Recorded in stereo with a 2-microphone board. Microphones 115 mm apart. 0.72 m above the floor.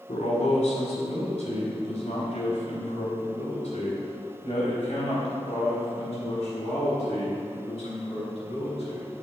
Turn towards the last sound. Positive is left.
turn(degrees=55)  # may be behind; listen again after turning